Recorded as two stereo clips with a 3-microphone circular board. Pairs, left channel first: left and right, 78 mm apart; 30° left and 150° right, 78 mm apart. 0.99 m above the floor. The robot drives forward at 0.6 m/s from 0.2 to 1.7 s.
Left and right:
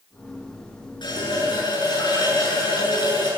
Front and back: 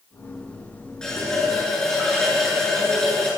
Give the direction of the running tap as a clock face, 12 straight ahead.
8 o'clock.